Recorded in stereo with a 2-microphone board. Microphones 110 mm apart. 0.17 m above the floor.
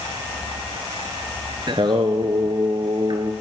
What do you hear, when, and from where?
1.7 s singing: 45° right (ahead or behind), 0.7 m